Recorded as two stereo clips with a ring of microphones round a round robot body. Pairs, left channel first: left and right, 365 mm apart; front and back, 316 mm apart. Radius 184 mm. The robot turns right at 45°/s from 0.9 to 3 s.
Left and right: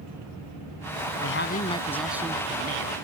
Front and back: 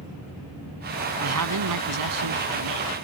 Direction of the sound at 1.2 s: 140° left.